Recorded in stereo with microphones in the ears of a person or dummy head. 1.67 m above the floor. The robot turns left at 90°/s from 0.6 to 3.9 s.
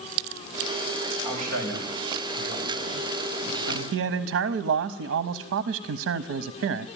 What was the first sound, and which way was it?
A man speaking, 25° right (ahead or behind).